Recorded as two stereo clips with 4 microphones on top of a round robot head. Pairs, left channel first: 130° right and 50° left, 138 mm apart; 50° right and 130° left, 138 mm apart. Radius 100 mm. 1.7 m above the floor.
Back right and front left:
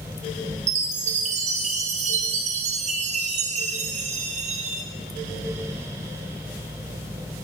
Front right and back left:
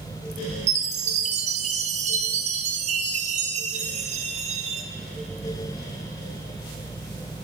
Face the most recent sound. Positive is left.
turn(degrees=90)